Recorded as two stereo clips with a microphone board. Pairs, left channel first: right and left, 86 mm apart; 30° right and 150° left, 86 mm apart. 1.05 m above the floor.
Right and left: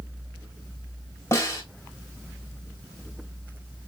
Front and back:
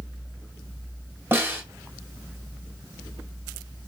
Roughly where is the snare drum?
Behind right.